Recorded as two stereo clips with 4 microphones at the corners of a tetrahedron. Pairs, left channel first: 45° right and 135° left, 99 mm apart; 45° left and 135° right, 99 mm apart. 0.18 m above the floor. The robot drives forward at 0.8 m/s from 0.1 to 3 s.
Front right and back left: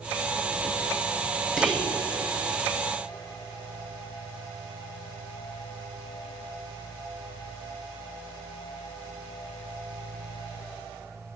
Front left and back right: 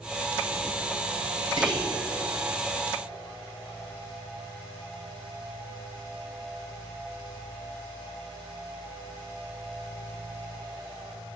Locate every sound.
1.6 s whispering: 130° right, 1.7 m; by 2.0 s 140° right, 1.9 m